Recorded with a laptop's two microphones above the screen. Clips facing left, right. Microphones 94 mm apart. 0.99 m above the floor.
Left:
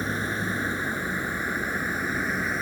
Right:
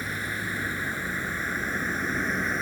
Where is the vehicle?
30° left (ahead or behind); by 2.6 s 5° left (ahead or behind).